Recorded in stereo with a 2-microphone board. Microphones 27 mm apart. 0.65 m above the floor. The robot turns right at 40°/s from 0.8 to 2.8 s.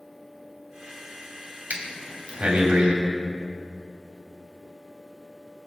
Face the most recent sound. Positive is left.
turn(degrees=-30)  # may be behind; listen again after turning